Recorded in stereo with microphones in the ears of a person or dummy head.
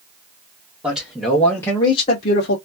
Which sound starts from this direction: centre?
A man speaking, at 0.8 s.